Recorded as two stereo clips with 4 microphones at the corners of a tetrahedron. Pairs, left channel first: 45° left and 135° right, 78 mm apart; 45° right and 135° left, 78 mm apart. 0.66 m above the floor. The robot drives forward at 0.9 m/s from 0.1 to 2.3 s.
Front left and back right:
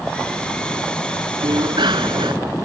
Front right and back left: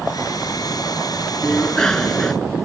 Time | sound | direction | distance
1.4 | a bicycle bell | 120° right | ?